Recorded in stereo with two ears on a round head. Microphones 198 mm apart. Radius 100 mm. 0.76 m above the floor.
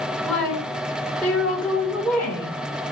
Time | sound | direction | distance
0.2 | a woman speaking | 5° left (ahead or behind) | 2 m